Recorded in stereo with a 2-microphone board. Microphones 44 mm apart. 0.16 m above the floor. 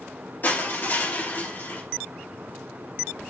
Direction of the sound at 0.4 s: 40° left (ahead or behind).